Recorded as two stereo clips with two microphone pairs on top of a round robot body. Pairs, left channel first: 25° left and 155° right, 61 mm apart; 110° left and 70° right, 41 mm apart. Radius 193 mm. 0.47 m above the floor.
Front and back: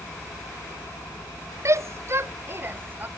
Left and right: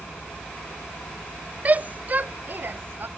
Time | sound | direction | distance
1.6 | a shout | 115° right | ?